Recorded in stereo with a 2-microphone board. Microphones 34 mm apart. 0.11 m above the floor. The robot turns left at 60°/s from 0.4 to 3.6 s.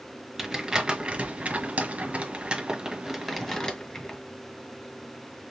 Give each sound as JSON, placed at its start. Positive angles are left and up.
{"t": 0.4, "sound": "crumpling", "side_deg": -10, "distance_m": 1.6}